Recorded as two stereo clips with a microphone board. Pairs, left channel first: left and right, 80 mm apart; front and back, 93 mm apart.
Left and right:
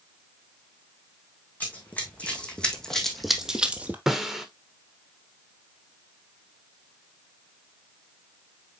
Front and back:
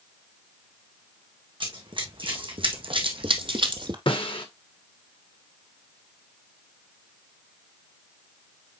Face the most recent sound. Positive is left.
turn(degrees=-5)